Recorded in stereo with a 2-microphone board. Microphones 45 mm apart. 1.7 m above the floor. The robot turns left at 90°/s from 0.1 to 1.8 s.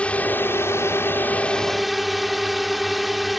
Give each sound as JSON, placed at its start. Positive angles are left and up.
{"t": 0.0, "sound": "a drone", "azimuth_deg": 150}